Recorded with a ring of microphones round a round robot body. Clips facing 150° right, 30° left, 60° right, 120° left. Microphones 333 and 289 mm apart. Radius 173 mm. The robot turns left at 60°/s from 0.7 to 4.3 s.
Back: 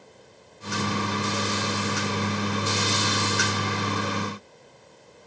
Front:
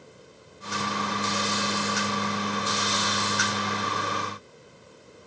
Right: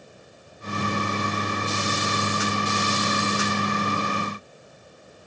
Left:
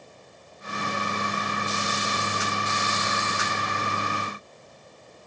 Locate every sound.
Only background noise.